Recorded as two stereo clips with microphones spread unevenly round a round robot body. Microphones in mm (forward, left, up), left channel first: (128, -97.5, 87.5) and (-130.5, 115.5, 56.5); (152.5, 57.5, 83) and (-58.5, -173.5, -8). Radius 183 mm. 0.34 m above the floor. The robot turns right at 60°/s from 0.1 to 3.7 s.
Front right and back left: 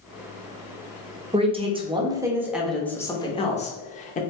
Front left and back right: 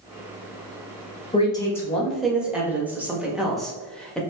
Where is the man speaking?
135° left, 0.8 m; by 4.2 s 80° right, 0.8 m.